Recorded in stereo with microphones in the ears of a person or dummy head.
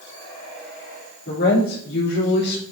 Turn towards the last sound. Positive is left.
turn(degrees=65)  # may be behind; listen again after turning